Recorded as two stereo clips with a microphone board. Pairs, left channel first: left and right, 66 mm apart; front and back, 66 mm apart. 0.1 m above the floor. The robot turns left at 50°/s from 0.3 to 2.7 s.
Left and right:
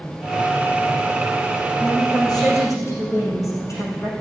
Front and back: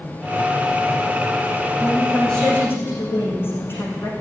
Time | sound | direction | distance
1.8 | a woman speaking | 100° left | 6 m